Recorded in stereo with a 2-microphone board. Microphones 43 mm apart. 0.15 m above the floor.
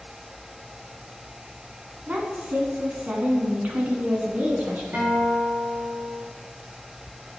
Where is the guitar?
60° right (ahead or behind), 3 m.